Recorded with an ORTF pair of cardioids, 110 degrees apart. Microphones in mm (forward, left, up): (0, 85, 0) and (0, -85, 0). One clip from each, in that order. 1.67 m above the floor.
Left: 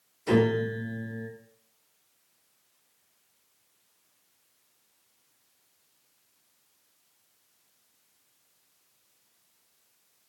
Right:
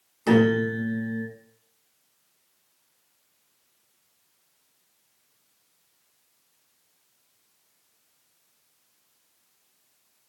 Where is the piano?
70° right, 0.9 m.